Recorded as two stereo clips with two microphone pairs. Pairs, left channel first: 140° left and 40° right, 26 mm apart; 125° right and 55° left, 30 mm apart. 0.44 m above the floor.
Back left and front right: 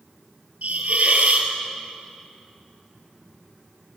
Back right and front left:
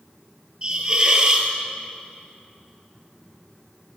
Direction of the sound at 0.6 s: 10° right.